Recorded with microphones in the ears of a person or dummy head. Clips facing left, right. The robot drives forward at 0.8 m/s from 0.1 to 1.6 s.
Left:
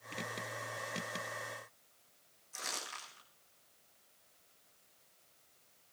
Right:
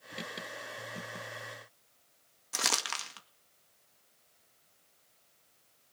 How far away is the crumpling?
About 1.9 m.